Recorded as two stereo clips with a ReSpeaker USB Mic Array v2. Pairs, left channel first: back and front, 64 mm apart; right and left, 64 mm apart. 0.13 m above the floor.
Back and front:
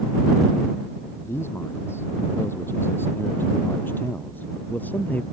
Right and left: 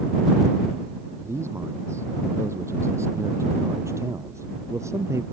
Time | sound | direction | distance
1.2 | a man speaking | 135° left | ?